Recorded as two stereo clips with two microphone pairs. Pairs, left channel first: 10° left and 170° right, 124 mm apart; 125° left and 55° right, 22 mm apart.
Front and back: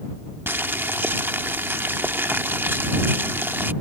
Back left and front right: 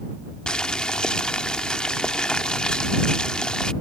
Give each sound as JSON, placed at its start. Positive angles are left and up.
{"t": 0.5, "sound": "boiling", "azimuth_deg": 120}